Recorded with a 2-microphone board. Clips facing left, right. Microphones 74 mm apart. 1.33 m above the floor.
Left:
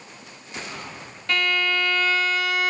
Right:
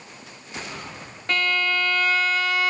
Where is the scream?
I don't hear a scream.